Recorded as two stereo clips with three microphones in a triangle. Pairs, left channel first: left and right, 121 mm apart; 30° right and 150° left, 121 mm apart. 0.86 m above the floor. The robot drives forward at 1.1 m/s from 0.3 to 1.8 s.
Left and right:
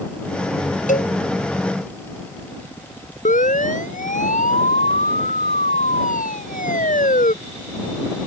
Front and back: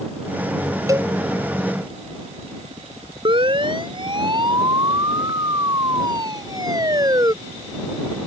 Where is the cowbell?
85° left; by 1.1 s 90° left.